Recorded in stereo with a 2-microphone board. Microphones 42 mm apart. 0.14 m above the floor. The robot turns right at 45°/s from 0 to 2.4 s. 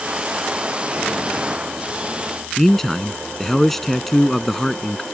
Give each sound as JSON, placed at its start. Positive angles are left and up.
{"t": 2.6, "sound": "a man speaking", "side_deg": 5}